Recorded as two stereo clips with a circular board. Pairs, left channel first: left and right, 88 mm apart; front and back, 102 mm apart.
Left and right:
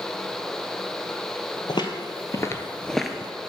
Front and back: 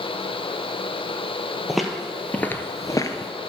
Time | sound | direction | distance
1.7 | footsteps | 95° left | 0.9 m